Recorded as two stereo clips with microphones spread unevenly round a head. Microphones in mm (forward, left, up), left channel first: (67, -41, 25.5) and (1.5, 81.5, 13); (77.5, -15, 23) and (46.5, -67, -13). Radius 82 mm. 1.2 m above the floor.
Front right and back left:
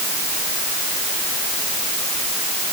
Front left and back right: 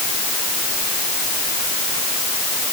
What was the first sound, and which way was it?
Only background noise.